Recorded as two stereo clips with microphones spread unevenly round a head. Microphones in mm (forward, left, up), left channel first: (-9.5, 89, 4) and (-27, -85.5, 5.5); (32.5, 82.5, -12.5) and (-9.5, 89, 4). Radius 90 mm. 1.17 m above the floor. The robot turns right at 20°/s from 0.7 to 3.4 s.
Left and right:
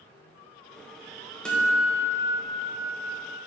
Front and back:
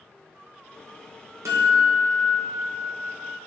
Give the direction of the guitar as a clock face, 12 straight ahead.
6 o'clock.